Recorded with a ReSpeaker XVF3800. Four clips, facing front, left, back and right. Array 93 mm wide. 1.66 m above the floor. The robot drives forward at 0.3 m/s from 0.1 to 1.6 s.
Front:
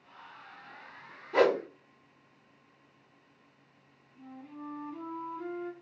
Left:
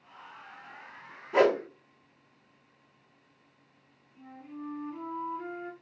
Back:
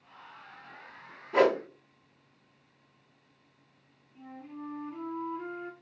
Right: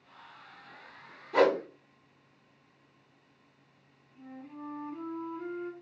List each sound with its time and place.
1.3 s a whoosh: 115° left, 0.9 m; by 1.6 s 125° left, 0.9 m
4.2 s a flute: 165° left, 0.9 m